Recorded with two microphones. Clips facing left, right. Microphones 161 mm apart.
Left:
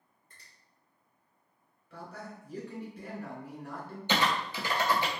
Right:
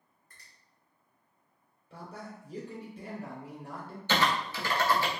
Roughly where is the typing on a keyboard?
Centre.